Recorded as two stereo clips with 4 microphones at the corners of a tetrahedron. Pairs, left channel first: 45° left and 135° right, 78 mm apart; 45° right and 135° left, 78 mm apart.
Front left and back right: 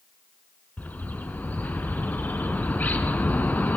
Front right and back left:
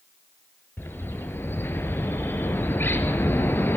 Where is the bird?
10° right, 1.0 m.